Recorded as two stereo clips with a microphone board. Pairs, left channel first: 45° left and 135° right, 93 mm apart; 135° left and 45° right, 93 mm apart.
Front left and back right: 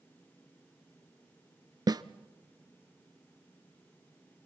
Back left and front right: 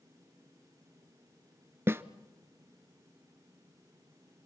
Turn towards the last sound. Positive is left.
turn(degrees=-105)